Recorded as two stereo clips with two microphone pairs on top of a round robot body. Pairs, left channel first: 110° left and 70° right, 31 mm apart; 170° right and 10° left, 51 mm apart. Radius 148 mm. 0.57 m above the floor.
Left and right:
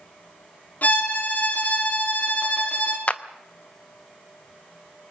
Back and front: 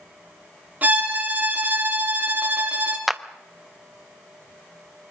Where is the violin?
70° left, 2.5 m.